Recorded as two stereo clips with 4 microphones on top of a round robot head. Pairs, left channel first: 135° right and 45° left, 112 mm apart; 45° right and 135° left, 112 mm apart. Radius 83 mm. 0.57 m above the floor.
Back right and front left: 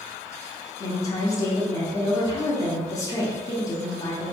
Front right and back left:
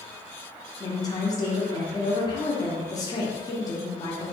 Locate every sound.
0.8 s a woman speaking: 85° right, 0.8 m